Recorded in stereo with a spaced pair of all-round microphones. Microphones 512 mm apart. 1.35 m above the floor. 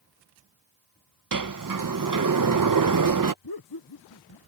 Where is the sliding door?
40° right (ahead or behind).